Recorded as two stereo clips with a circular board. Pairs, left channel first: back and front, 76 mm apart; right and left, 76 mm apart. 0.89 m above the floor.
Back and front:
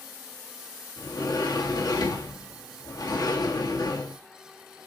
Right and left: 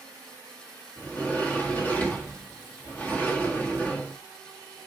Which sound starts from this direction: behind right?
A sliding door, at 1.0 s.